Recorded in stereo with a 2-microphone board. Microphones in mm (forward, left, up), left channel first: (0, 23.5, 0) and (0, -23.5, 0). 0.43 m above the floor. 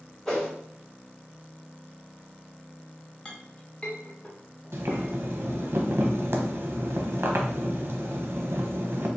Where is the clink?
20° left (ahead or behind), 0.6 m.